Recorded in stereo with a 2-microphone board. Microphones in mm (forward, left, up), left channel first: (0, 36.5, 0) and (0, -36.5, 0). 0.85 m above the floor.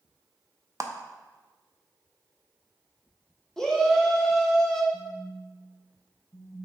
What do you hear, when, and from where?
0.8 s a clap: 45° right (ahead or behind), 0.6 m
3.6 s a shout: 5° left (ahead or behind), 0.8 m
4.9 s a phone buzzing: 50° left (ahead or behind), 0.6 m